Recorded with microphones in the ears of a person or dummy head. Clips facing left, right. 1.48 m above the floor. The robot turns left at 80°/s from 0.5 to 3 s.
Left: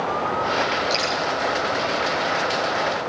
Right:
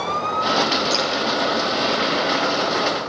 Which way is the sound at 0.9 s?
10° right (ahead or behind).